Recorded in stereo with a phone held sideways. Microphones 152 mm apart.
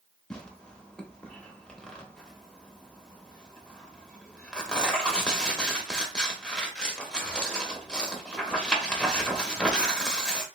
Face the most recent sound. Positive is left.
turn(degrees=5)  # may be behind; listen again after turning